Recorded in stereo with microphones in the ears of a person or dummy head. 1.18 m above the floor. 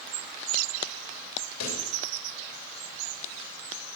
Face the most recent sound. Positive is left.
turn(degrees=75)  # may be behind; listen again after turning